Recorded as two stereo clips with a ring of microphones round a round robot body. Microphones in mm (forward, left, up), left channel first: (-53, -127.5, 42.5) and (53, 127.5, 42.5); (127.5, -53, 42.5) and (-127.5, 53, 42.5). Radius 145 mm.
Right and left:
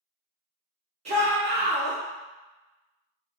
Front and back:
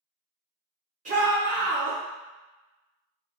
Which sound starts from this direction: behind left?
A shout, at 1.1 s.